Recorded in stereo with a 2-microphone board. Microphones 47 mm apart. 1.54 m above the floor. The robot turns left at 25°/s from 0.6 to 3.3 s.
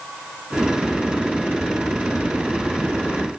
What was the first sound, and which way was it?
Only background noise.